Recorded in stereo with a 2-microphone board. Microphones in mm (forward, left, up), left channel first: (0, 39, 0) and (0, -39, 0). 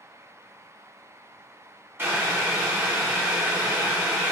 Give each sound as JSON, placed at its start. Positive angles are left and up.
{"t": 2.0, "sound": "boiling", "side_deg": -30, "distance_m": 1.7}